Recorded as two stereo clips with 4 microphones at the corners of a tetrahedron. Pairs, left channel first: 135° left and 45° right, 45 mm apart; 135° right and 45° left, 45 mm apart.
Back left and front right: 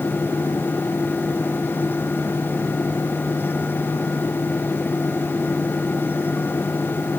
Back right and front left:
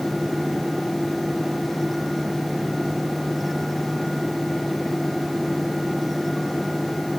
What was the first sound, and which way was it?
Only background noise.